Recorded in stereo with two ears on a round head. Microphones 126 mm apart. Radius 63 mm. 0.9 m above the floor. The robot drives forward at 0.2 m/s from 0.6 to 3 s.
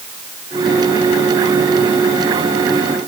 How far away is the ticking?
No ticking in this recording.